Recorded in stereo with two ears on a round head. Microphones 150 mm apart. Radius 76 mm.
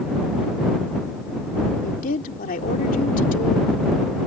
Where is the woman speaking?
55° left (ahead or behind).